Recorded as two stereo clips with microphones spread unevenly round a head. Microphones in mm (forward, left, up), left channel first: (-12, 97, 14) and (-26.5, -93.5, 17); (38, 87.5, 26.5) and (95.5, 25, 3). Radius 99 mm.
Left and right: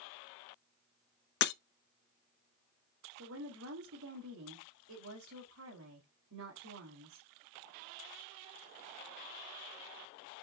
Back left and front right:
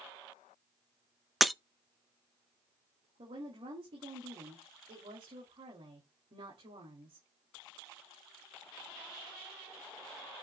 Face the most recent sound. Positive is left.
turn(degrees=-75)